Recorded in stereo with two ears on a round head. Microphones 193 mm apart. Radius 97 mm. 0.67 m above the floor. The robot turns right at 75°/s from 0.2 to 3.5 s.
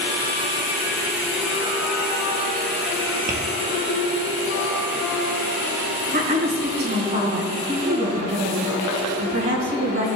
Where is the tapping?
35° right (ahead or behind), 1.4 m; by 3.4 s 30° right (ahead or behind), 1.4 m.